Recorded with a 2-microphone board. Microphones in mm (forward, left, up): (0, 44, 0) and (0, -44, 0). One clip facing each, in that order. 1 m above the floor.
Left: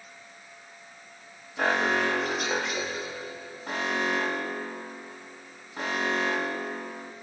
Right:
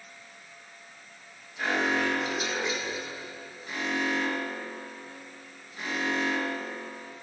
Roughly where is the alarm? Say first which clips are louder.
Left 2 dB; left.